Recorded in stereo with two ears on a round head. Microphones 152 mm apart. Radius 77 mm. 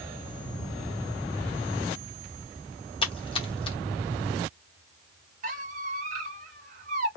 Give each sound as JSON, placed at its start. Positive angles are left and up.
{"t": 3.0, "sound": "a splash", "side_deg": 30, "distance_m": 1.0}
{"t": 5.4, "sound": "a squeak", "side_deg": -45, "distance_m": 1.2}